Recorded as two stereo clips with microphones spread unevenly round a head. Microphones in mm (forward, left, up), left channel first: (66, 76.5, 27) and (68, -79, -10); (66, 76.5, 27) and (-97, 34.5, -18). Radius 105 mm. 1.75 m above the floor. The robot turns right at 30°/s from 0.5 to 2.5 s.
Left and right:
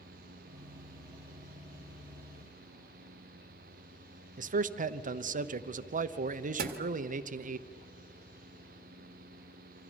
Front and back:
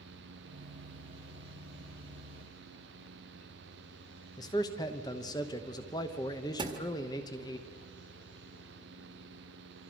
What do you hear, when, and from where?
4.4 s a man speaking: 55° right, 1.0 m
6.6 s a thud: 90° right, 1.6 m